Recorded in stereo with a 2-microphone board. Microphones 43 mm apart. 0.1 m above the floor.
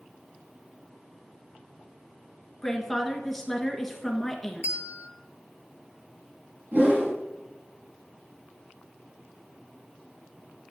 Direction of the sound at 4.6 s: 50° right (ahead or behind).